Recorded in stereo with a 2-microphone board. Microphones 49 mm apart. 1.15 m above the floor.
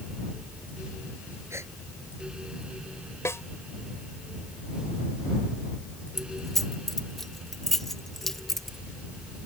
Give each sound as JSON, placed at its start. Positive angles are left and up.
{"t": 1.5, "sound": "a gasp", "side_deg": -65}
{"t": 3.2, "sound": "a snare drum", "side_deg": 65}
{"t": 6.2, "sound": "keys jangling", "side_deg": 5}